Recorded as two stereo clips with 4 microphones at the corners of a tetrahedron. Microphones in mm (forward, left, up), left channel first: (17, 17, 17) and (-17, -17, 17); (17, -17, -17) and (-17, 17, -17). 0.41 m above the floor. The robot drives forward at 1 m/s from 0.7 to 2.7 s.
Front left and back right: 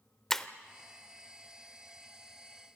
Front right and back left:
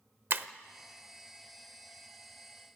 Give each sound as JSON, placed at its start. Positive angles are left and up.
{"t": 0.3, "sound": "breaking glass", "azimuth_deg": 125, "distance_m": 0.7}